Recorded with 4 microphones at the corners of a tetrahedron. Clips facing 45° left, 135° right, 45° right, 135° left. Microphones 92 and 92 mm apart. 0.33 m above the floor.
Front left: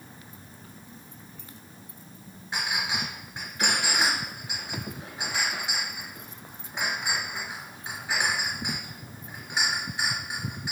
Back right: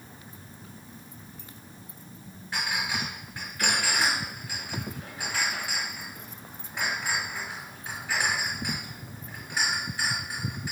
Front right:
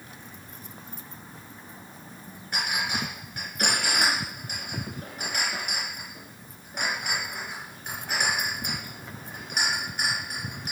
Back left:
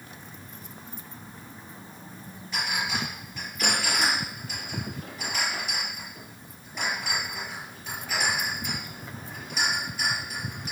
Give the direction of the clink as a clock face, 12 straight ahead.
1 o'clock.